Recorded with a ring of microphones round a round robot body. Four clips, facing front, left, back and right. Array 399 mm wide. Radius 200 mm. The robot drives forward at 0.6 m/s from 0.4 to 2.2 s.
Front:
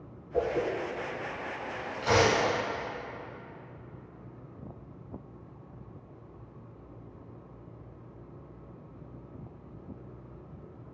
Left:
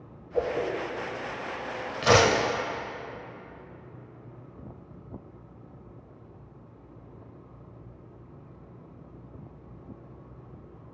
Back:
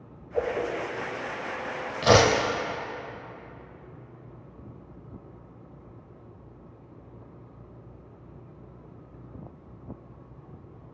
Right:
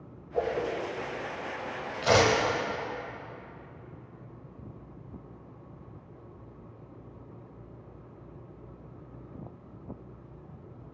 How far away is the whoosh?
About 1.4 m.